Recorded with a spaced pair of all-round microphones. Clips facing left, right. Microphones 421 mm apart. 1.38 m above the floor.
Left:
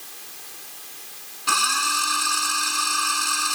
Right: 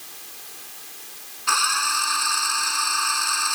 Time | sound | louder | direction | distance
1.5 | a drill | left 1 dB | 50° left (ahead or behind) | ?